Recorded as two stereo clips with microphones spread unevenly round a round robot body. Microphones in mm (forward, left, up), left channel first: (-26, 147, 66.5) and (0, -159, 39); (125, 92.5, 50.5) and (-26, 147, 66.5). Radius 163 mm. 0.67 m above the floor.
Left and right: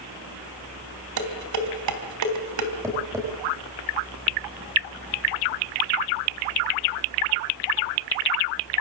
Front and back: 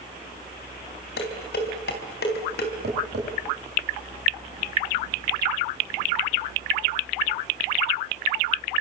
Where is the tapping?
165° right, 6 m.